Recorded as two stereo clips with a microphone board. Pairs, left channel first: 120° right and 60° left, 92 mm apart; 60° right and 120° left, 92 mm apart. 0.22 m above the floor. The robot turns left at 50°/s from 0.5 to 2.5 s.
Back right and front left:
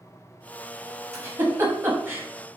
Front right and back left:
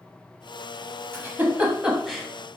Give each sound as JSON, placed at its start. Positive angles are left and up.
{"t": 1.1, "sound": "a giggle", "azimuth_deg": 80, "distance_m": 0.9}